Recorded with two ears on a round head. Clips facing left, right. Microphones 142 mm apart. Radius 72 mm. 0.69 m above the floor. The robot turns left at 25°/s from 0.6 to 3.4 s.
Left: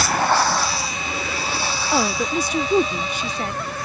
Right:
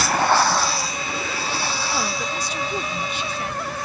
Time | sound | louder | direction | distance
1.9 | a woman speaking | left 5 dB | 90° left | ?